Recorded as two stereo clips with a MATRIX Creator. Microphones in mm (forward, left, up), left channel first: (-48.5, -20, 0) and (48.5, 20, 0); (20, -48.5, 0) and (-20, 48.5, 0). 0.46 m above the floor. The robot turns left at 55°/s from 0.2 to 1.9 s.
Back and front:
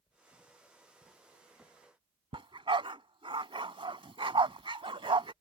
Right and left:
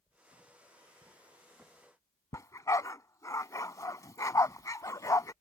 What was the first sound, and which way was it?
A dog barking, 10° right.